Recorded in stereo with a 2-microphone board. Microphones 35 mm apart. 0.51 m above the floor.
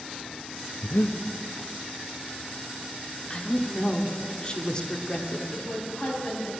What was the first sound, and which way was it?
Breathing, 80° left.